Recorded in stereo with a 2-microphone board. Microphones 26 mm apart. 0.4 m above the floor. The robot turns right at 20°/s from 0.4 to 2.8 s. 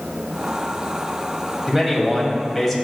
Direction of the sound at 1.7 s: 10° right (ahead or behind).